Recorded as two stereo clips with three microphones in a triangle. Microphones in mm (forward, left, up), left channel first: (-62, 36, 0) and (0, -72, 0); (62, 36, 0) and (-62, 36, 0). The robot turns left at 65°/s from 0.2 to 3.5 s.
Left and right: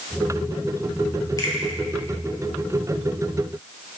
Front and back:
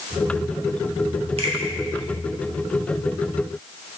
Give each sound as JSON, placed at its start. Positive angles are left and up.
{"t": 1.4, "sound": "a finger snap", "azimuth_deg": 175, "distance_m": 1.8}